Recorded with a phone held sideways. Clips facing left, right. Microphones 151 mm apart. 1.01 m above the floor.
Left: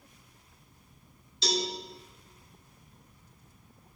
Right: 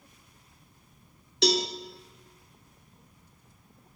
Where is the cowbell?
70° right (ahead or behind), 1.0 m.